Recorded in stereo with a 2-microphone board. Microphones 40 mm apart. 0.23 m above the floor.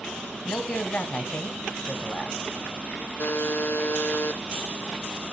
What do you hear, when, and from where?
0.5 s a man speaking: 35° left (ahead or behind), 1.3 m
3.2 s a buzzer: 70° left (ahead or behind), 0.6 m